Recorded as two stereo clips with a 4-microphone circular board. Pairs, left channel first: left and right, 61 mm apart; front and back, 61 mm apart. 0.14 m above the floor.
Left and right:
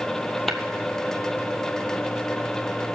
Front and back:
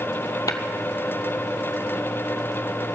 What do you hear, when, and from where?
0.5 s tapping: 5° left, 0.8 m